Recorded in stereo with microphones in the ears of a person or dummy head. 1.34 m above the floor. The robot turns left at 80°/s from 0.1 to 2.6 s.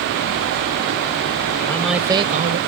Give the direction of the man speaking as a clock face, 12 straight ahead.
11 o'clock.